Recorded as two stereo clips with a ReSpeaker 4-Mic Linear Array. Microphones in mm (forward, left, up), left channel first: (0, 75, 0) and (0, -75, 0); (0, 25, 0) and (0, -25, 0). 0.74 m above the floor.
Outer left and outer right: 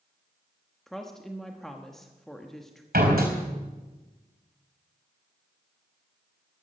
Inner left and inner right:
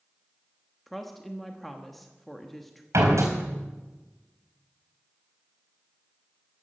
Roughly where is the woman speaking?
Centre.